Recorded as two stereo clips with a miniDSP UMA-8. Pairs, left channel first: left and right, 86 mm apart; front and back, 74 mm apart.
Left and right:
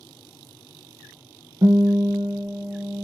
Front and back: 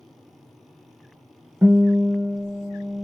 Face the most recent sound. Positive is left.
turn(degrees=-115)